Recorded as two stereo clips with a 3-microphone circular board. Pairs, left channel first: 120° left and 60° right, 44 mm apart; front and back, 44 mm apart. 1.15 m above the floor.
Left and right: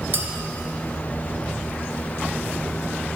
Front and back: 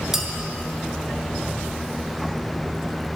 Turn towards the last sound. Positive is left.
turn(degrees=-100)